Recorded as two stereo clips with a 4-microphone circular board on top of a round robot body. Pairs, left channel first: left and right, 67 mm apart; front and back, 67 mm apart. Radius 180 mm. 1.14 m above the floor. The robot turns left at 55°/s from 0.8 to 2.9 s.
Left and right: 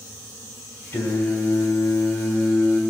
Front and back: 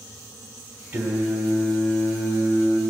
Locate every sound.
0.9 s singing: 125° left, 3.5 m; by 2.8 s 25° left, 3.5 m